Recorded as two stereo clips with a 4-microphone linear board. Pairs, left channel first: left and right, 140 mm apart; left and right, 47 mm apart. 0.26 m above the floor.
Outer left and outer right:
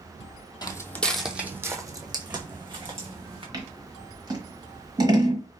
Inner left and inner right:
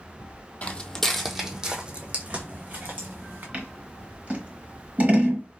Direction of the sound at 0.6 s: 35° left (ahead or behind).